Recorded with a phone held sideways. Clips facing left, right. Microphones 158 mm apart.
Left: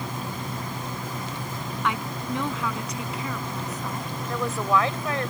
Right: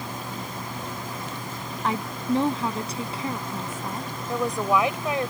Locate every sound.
1.8 s a woman speaking: 35° right (ahead or behind); by 4.1 s 25° right (ahead or behind)
4.3 s a woman speaking: 15° right (ahead or behind)